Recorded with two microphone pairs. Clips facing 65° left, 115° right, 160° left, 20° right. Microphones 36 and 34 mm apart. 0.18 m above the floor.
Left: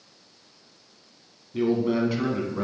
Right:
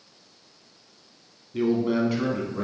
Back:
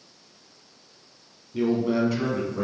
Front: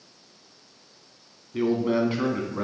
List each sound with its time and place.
1.5 s a man speaking: 35° right, 1.7 m; by 2.6 s 5° left, 1.7 m